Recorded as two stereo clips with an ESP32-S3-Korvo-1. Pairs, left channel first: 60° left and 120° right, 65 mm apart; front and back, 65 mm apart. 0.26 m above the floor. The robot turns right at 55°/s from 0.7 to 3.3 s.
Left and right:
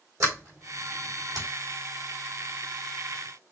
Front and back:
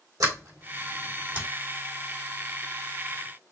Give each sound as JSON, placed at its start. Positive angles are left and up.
{"t": 0.2, "sound": "a sliding door", "azimuth_deg": -160, "distance_m": 3.5}